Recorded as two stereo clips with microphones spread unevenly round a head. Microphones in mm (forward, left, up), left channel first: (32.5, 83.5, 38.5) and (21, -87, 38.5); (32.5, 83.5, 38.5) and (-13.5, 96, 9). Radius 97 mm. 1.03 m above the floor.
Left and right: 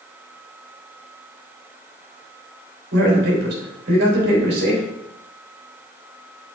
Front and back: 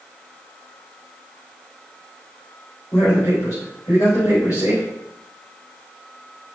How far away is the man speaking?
About 4 m.